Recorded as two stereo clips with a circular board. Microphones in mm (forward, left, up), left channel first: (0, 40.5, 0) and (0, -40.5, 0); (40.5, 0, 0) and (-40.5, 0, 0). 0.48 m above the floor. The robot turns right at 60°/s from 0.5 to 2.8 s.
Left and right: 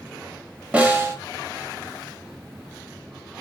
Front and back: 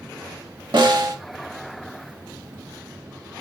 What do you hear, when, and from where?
0.7 s a snare drum: 165° right, 0.7 m; by 1.2 s 140° right, 0.7 m